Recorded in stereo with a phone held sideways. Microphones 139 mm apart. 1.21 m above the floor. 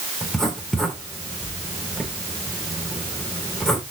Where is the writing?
5° left (ahead or behind), 3 m.